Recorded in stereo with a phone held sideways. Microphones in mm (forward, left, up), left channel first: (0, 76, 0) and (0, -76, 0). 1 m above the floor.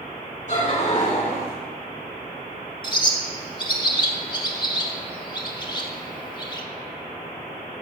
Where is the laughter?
55° left (ahead or behind), 3.5 m; by 1.6 s 40° left (ahead or behind), 3.5 m.